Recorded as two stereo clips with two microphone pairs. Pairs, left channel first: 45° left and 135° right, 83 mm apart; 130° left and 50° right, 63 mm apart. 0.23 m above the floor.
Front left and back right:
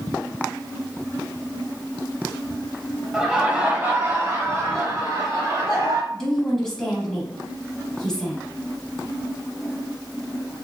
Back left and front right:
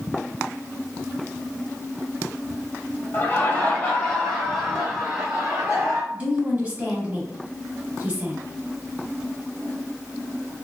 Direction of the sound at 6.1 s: 35° right.